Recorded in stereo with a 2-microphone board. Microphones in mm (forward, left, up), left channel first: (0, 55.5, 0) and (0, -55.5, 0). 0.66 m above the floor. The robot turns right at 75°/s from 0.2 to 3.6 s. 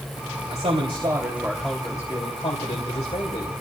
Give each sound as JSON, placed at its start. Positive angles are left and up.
{"t": 0.5, "sound": "a man speaking", "azimuth_deg": -80, "distance_m": 3.0}